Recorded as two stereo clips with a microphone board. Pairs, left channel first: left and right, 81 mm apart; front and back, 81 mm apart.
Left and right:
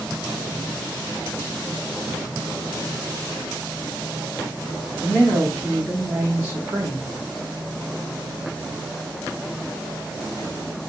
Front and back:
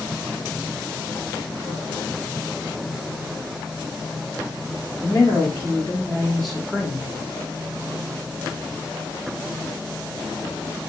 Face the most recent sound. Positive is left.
turn(degrees=-110)